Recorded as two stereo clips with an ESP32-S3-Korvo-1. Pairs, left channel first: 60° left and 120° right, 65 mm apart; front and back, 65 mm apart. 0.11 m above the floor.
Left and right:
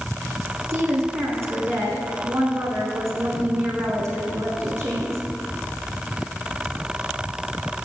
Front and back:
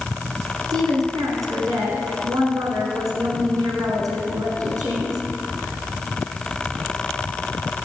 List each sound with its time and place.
0.7 s a woman speaking: 160° right, 6 m